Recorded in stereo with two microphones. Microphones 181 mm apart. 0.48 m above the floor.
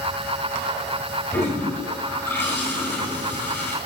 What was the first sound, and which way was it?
A toilet flushing, 10° left (ahead or behind).